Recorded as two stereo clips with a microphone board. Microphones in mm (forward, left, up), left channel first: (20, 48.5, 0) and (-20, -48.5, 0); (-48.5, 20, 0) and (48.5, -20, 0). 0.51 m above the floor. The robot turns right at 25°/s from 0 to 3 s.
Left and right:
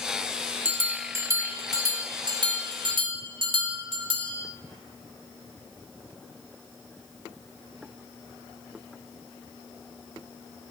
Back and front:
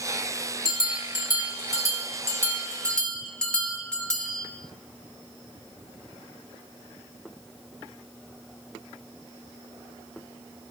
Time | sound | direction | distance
0.7 | a bell | straight behind | 1.0 m